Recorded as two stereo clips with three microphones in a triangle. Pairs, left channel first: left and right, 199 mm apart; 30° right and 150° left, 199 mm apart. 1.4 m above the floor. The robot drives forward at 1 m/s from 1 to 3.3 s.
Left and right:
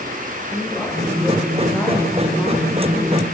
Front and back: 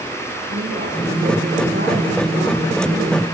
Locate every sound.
0.5 s a woman speaking: 175° left, 6.5 m; by 3.2 s straight behind, 8.5 m